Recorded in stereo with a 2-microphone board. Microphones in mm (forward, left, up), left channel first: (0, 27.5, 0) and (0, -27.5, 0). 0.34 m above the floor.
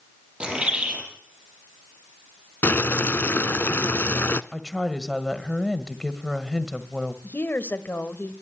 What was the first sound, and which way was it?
A bird, 20° right (ahead or behind).